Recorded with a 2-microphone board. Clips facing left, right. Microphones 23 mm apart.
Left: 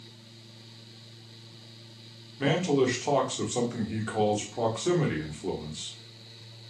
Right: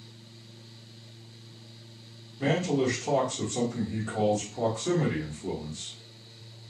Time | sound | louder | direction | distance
2.4 | a man speaking | left 2 dB | 65° left (ahead or behind) | 0.9 m